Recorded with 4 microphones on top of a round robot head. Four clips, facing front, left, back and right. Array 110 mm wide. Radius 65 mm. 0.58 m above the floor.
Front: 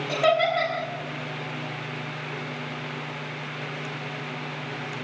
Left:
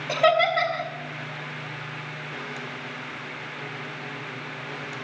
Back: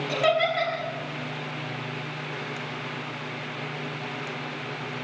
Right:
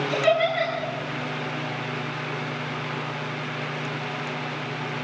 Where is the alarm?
No alarm in this recording.